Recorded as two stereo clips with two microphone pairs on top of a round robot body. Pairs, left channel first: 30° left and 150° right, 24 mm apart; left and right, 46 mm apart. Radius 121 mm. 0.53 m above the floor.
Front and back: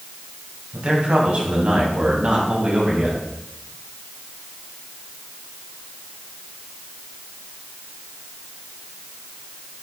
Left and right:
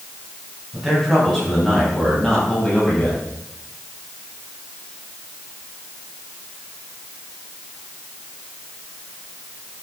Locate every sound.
0.7 s a man speaking: 175° right, 4.5 m; by 3.2 s 165° left, 4.5 m